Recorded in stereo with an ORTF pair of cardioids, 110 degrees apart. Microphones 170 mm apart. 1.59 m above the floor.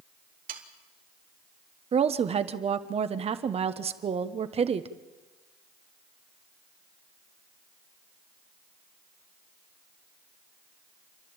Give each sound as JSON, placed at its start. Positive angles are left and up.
{"t": 0.5, "sound": "sawing", "azimuth_deg": -55, "distance_m": 2.5}
{"t": 1.9, "sound": "a woman speaking", "azimuth_deg": -35, "distance_m": 1.3}